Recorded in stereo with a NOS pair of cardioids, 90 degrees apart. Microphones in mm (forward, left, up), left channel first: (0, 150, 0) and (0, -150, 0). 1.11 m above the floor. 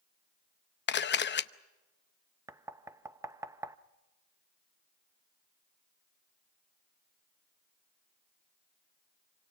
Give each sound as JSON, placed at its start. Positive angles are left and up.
{"t": 0.9, "sound": "a camera shutter", "azimuth_deg": 35, "distance_m": 0.8}
{"t": 2.5, "sound": "knocking", "azimuth_deg": -10, "distance_m": 0.7}